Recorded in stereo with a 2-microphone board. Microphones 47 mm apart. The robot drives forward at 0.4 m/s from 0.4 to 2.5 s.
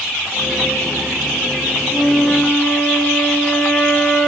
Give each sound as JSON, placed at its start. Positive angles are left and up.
{"t": 1.9, "sound": "a flute", "side_deg": 10, "distance_m": 4.5}